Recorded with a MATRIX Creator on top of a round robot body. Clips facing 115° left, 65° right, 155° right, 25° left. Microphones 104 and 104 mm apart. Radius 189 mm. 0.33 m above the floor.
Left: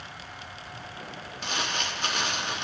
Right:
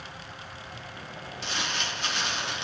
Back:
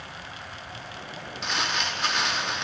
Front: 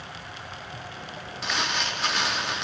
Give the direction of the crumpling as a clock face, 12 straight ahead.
8 o'clock.